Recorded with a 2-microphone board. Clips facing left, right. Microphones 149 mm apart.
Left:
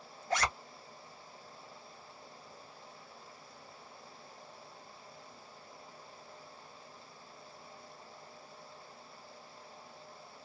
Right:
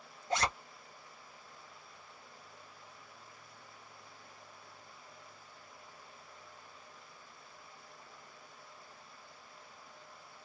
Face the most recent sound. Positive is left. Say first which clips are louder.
# even
turn(degrees=-25)  # may be behind; listen again after turning